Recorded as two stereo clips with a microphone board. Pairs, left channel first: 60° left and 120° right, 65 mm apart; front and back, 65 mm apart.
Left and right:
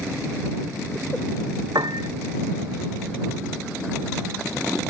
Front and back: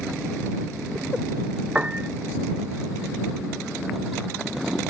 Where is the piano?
110° right.